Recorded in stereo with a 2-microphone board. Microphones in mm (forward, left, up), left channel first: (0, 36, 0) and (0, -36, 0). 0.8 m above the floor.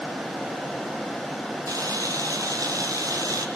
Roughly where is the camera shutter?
Right.